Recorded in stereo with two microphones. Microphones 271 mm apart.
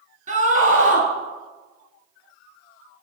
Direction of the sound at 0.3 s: 30° right (ahead or behind).